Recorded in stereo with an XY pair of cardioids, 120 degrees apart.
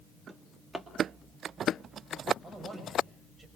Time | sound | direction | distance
0.3 | a drawer | 5° right | 2.5 m
2.4 | a man speaking | 25° right | 7 m